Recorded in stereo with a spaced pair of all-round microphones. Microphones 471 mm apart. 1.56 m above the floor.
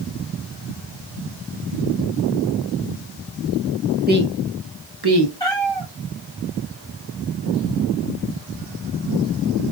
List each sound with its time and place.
4.1 s a woman speaking: 20° right (ahead or behind), 0.8 m; by 5.3 s 60° right (ahead or behind), 0.9 m
5.4 s a cat meowing: 10° left (ahead or behind), 3 m